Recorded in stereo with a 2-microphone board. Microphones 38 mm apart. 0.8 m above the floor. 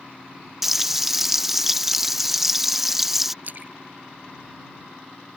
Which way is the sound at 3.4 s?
50° right (ahead or behind).